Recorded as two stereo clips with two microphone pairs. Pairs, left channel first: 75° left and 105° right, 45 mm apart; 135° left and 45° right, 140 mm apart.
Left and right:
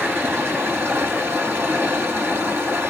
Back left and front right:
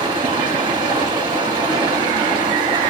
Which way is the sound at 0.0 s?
90° right.